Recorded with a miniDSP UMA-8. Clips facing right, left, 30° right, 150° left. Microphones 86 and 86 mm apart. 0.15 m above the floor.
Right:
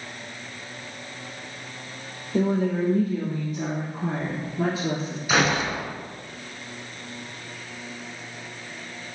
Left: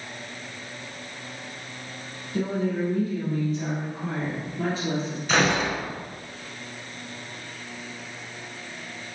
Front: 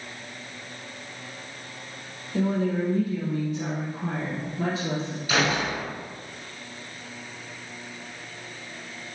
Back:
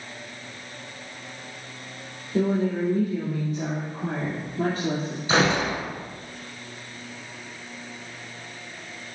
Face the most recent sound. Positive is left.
turn(degrees=-170)